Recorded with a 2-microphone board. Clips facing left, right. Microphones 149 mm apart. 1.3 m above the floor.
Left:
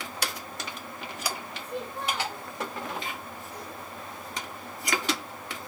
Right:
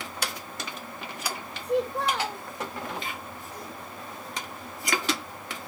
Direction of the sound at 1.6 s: 85° right.